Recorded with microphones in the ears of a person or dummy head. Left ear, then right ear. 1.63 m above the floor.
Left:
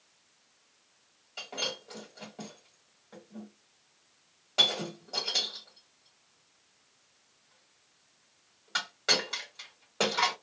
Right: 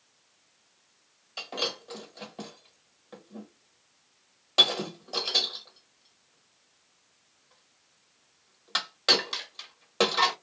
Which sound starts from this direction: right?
Breaking glass, at 1.4 s.